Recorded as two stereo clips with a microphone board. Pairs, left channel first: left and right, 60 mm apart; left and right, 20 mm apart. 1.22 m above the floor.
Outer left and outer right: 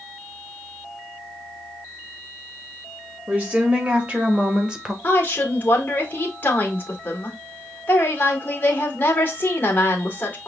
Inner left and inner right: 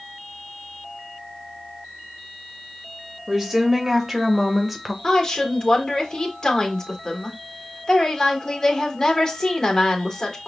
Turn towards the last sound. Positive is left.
turn(degrees=35)  # may be behind; listen again after turning